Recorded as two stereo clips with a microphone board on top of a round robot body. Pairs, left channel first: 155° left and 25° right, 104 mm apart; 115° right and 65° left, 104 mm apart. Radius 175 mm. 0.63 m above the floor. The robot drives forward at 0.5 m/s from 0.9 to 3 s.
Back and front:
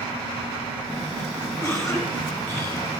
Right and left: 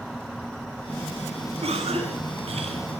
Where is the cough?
95° left, 8.5 m; by 2.8 s 100° left, 8.5 m.